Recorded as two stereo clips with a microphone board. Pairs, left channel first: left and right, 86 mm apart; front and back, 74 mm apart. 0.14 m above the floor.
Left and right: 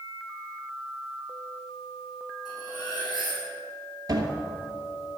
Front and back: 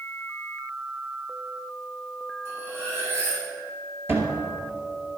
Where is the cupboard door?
130° right, 2.0 m.